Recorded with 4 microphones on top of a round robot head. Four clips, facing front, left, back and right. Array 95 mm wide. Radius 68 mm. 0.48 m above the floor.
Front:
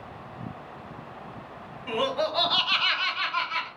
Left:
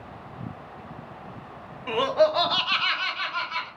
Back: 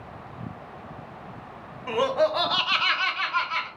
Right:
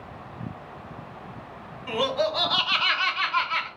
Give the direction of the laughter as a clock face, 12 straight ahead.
8 o'clock.